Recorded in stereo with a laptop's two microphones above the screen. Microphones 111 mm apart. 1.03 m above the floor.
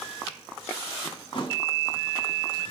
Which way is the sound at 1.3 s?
45° left (ahead or behind).